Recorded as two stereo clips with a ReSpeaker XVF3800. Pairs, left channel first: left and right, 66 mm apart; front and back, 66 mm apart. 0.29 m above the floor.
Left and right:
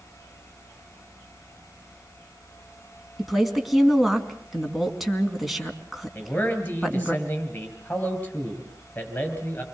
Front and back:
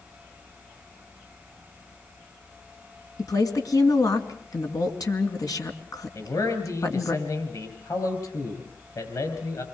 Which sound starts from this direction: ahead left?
A man speaking, at 6.2 s.